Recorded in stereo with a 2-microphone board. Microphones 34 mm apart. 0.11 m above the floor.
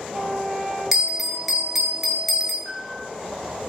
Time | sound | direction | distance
0.9 | a bell | 10° right (ahead or behind) | 0.7 m
2.6 | a piano | 10° right (ahead or behind) | 1.7 m